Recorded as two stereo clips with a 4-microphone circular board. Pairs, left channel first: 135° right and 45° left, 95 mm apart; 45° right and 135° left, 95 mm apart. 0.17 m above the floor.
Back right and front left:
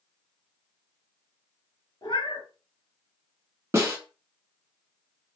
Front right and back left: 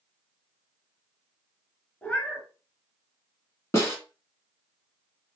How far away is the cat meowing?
About 0.9 m.